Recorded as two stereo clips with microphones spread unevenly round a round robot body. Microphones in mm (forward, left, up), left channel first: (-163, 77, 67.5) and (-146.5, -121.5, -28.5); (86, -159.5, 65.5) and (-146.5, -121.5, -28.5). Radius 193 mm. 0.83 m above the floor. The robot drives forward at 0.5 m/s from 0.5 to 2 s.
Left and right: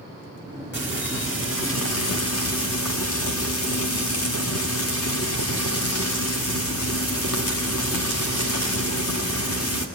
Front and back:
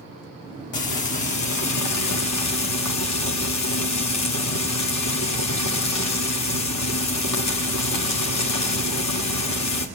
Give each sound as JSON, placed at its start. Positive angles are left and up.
{"t": 0.7, "sound": "frying", "azimuth_deg": 30, "distance_m": 2.0}